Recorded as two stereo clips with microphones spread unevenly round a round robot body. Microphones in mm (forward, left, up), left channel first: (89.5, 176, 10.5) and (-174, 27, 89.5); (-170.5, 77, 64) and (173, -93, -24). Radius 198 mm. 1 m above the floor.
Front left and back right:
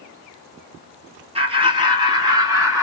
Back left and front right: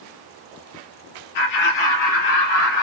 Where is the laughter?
135° left, 1.6 m; by 2.8 s 125° left, 2.5 m.